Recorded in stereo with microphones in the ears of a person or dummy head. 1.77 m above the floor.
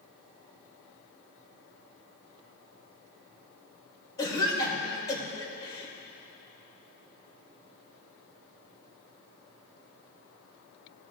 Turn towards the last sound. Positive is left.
turn(degrees=20)  # may be behind; listen again after turning